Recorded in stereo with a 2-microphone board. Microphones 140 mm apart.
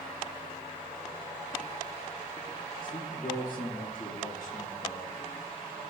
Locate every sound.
2.8 s a man speaking: 70° left (ahead or behind), 3.5 m